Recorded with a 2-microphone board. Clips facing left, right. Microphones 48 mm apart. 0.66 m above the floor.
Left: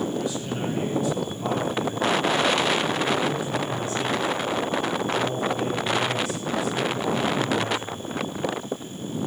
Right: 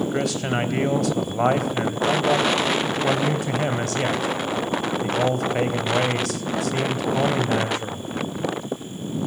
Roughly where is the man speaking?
Right.